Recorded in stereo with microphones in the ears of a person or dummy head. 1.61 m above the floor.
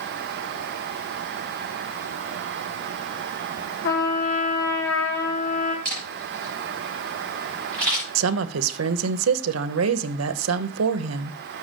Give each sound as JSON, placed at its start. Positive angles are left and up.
{"t": 3.8, "sound": "a trumpet", "side_deg": 70, "distance_m": 2.5}
{"t": 5.8, "sound": "a camera shutter", "side_deg": 15, "distance_m": 5.5}
{"t": 8.2, "sound": "a woman speaking", "side_deg": -80, "distance_m": 0.9}